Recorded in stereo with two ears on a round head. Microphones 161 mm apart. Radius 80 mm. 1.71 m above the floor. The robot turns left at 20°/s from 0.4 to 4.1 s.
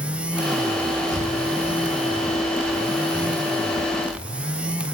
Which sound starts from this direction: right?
Breathing, at 1.1 s.